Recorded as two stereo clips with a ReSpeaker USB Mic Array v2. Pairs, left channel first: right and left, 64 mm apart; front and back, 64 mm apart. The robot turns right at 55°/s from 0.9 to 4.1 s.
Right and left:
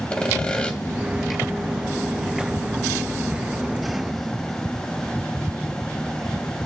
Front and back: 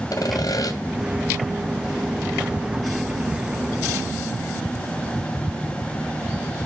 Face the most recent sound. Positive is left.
turn(degrees=160)